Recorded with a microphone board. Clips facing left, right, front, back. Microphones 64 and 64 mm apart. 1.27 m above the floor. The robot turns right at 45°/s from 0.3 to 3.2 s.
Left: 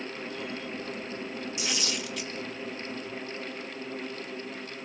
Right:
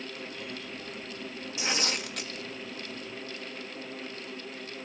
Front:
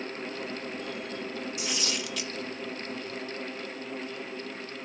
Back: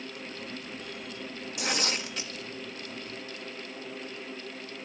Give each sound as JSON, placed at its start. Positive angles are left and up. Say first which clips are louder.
{"t": 1.6, "sound": "tearing paper", "louder": "right 4 dB, back 6 dB", "azimuth_deg": -150, "distance_m": 1.8}